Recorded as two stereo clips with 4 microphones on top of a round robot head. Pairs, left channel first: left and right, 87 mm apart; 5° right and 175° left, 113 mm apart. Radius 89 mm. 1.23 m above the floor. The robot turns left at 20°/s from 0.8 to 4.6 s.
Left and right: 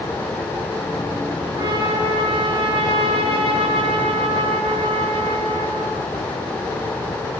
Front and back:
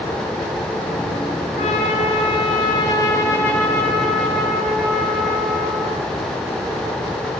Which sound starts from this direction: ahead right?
A trumpet, at 1.6 s.